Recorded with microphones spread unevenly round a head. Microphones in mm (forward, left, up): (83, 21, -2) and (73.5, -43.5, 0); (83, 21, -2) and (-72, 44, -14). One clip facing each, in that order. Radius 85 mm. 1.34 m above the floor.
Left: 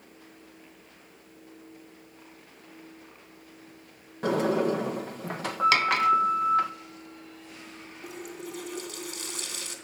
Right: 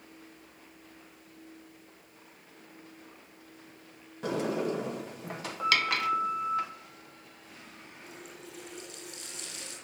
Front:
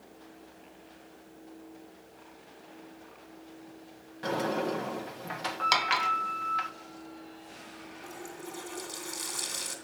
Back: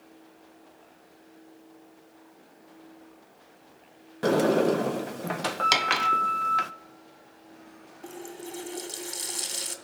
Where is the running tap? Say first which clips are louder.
Left 9 dB, back 5 dB; 120° left, 2.5 m.